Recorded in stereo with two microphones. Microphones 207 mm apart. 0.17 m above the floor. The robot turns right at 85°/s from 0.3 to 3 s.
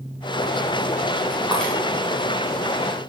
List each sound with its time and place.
1.5 s breaking glass: 5° right (ahead or behind), 6 m; by 1.7 s 15° left (ahead or behind), 6 m